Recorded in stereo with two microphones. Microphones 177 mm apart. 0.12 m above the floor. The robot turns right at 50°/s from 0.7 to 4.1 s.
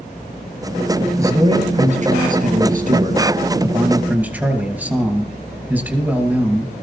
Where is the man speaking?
160° right, 2.5 m; by 6.7 s 10° right, 2.5 m.